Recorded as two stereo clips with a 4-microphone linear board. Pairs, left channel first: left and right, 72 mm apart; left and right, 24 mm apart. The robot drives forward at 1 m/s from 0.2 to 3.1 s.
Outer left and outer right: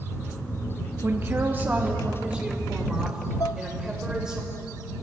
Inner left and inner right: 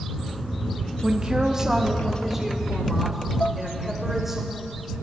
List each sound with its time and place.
1.0 s a woman speaking: 35° right (ahead or behind), 0.7 m; by 4.4 s 10° right (ahead or behind), 2 m
3.4 s dishes clattering: 55° left (ahead or behind), 0.6 m